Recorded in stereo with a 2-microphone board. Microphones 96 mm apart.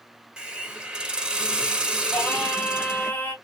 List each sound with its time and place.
0.4 s a hiss: 10° right (ahead or behind), 0.5 m
2.1 s singing: 20° left (ahead or behind), 0.7 m